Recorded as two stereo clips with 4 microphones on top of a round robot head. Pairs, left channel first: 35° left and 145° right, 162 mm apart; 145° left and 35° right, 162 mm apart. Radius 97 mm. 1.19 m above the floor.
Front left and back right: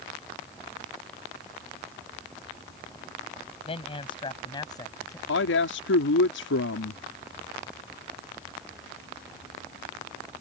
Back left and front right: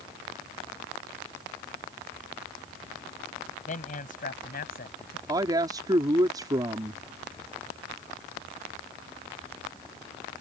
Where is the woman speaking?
35° left.